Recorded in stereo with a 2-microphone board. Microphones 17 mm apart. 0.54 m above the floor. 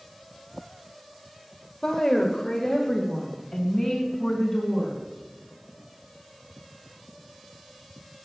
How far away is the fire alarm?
I don't hear a fire alarm.